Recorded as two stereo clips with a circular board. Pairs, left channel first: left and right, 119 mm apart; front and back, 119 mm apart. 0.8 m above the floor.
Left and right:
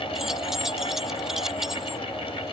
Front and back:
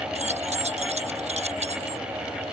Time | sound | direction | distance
0.1 | keys jangling | 175° right | ?